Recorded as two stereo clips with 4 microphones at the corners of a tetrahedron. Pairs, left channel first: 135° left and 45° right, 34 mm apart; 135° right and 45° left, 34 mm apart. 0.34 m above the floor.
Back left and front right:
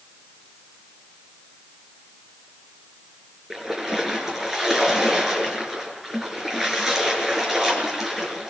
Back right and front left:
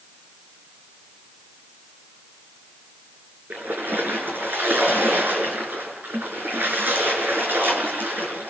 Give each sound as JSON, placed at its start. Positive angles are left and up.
{"t": 3.5, "sound": "a splash", "azimuth_deg": 30, "distance_m": 6.0}